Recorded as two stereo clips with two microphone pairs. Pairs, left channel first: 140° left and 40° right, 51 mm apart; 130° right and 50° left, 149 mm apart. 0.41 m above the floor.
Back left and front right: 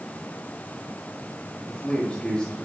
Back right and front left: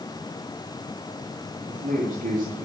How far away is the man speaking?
About 7.5 m.